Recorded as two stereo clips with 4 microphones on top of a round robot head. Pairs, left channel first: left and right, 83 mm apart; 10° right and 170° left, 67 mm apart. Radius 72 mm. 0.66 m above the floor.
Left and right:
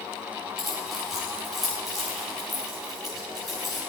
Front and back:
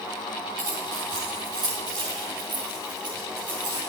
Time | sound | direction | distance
0.6 | keys jangling | straight behind | 6 m